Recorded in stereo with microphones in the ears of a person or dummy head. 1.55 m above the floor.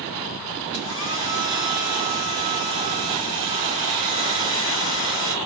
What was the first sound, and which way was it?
A hair dryer, 15° right (ahead or behind).